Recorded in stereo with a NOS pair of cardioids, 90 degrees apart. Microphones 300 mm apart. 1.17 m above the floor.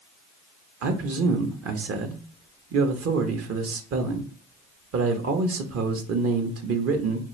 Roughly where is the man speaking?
Ahead right.